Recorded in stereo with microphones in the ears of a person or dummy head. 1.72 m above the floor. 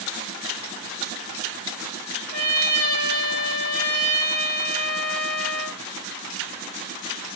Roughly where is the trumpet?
Right.